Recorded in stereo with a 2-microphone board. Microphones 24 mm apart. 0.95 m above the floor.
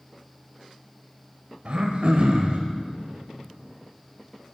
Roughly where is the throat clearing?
Right.